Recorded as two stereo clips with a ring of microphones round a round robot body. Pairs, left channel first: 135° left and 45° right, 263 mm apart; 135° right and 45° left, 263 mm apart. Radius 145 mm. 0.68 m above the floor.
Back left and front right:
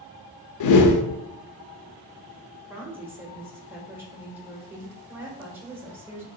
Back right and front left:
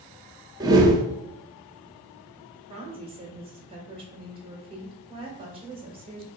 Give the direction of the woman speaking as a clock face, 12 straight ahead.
11 o'clock.